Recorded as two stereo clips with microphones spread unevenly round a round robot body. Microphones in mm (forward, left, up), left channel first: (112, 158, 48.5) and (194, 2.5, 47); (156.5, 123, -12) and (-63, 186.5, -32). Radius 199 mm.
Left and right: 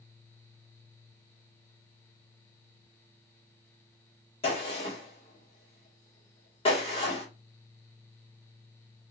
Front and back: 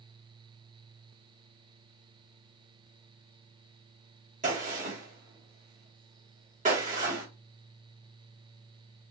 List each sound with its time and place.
4.4 s a gunshot: 150° left, 1.1 m